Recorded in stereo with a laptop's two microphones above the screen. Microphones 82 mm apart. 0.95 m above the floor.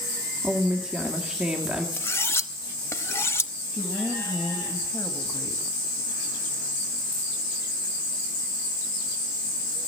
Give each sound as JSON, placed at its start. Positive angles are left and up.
{"t": 0.4, "sound": "a woman speaking", "side_deg": -10, "distance_m": 1.8}
{"t": 2.0, "sound": "cutlery clinking", "side_deg": 30, "distance_m": 0.6}
{"t": 3.7, "sound": "a woman speaking", "side_deg": 20, "distance_m": 1.6}